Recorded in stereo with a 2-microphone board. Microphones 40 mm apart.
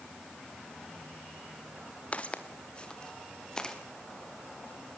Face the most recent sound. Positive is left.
turn(degrees=15)  # may be behind; listen again after turning